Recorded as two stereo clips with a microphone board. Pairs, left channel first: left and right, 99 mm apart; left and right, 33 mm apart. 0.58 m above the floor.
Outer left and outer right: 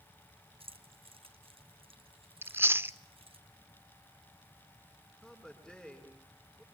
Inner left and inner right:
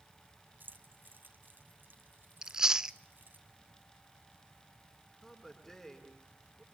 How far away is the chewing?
About 0.6 m.